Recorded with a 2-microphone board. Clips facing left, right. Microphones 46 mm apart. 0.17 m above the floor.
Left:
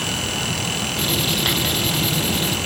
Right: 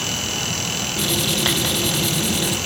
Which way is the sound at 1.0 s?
10° right (ahead or behind).